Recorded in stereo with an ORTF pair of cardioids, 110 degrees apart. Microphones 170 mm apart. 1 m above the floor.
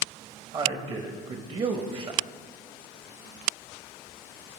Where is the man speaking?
30° right, 0.7 m.